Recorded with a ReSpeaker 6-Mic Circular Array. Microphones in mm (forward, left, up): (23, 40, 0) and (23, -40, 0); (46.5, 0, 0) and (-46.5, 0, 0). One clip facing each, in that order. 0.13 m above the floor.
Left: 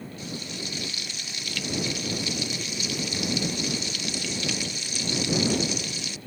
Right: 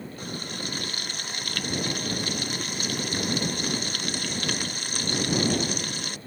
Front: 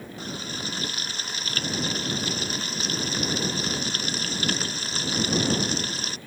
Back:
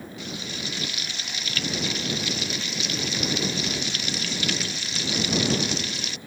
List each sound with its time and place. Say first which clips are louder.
0.2 s frying: right 1 dB, front 1 dB; 50° right